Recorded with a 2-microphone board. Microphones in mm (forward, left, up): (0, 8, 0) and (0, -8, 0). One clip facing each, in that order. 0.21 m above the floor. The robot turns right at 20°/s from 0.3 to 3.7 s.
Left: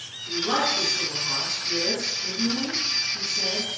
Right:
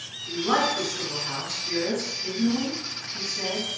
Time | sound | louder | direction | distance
0.3 | a woman speaking | even | 160° right | 1.5 m